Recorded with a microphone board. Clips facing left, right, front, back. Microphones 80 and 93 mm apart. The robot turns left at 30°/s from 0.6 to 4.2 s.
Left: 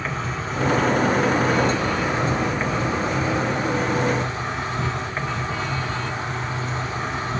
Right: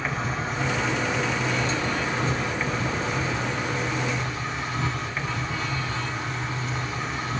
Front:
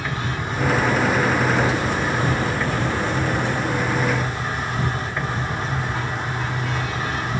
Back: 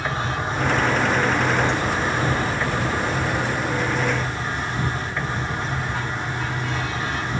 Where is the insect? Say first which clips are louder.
Left 1 dB, back 2 dB; 170° right, 2.5 m; by 7.4 s 85° left, 2.5 m.